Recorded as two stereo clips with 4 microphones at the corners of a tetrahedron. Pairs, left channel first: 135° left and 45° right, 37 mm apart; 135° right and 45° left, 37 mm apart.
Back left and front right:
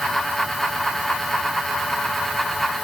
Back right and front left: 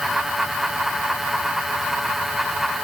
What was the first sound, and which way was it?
Only background noise.